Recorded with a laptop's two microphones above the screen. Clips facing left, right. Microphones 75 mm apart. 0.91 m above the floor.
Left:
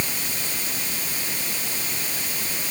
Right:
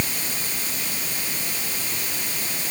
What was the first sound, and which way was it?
Only background noise.